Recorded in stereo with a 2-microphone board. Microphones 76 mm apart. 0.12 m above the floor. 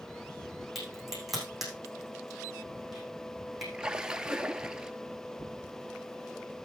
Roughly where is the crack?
Centre.